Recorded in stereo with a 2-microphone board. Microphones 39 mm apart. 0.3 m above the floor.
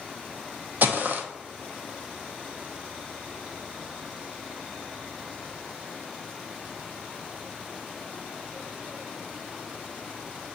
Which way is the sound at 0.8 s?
55° right (ahead or behind).